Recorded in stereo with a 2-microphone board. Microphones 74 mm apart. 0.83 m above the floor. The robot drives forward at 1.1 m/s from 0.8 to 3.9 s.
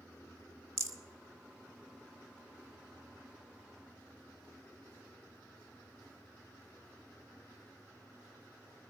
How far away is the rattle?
About 1.0 m.